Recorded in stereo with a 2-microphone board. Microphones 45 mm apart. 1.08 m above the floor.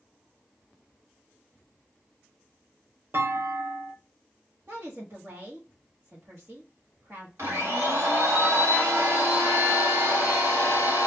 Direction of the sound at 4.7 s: 60° right (ahead or behind).